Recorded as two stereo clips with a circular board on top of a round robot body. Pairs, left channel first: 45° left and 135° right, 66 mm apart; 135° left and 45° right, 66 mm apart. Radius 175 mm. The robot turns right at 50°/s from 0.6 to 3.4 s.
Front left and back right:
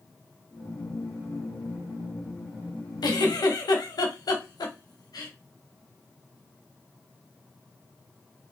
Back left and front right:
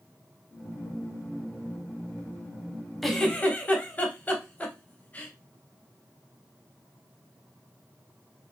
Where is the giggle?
50° left, 0.9 m; by 5.3 s 70° left, 0.9 m.